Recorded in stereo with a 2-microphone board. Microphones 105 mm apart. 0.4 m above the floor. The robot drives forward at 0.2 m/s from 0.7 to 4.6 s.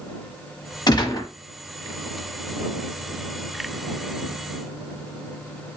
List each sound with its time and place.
0.9 s a gunshot: 40° left (ahead or behind), 1.1 m; by 1.3 s 45° left (ahead or behind), 1.0 m